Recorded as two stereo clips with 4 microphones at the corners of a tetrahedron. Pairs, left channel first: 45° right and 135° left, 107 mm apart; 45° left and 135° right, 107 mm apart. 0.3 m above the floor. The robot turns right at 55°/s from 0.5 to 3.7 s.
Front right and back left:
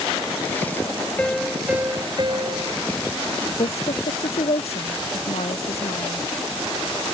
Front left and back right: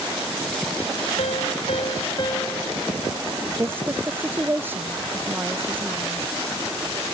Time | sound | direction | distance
1.2 | a piano | 30° left | ?
3.6 | a woman speaking | 70° right | ?